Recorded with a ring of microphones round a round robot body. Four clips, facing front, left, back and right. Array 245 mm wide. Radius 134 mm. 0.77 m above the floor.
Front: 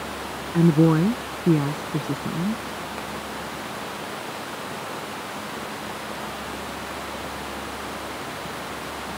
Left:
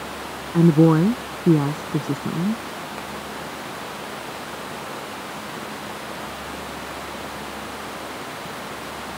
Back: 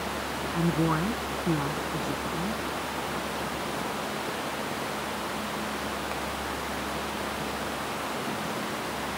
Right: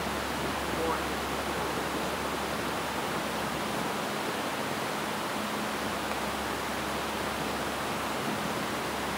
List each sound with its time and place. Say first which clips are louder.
0.5 s a woman speaking: left 20 dB, front 9 dB; 70° left; by 2.6 s 75° left